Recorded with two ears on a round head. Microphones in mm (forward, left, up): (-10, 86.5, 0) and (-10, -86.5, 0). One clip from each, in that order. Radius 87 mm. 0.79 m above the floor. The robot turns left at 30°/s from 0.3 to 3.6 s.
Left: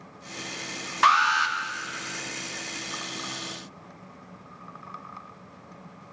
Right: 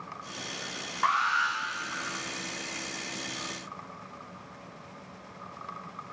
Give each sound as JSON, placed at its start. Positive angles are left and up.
{"t": 1.0, "sound": "an alarm", "side_deg": 75, "distance_m": 0.6}